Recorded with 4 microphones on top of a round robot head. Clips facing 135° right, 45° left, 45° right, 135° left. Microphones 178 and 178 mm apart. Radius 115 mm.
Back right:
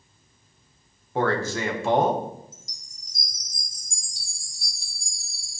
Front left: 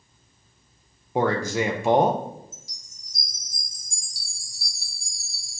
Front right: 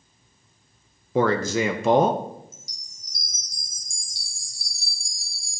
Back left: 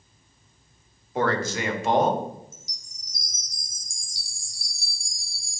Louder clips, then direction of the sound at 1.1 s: Front left 2 dB, front right 4 dB; 30° right.